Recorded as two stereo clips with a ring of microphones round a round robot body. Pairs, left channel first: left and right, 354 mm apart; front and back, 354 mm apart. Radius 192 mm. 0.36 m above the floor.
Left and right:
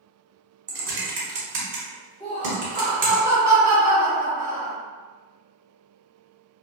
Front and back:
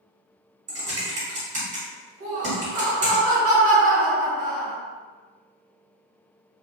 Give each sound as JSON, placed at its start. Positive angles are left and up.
{"t": 0.7, "sound": "typing on a keyboard", "azimuth_deg": -125, "distance_m": 1.0}
{"t": 2.2, "sound": "laughter", "azimuth_deg": 165, "distance_m": 1.8}